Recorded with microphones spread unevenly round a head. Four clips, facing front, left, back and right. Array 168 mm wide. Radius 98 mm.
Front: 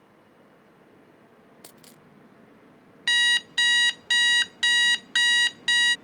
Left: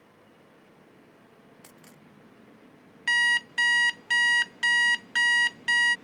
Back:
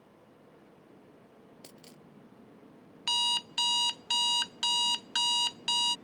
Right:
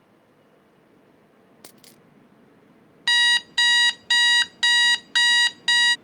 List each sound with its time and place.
1.6 s a dropped coin: 120° right
3.1 s an alarm clock: 75° right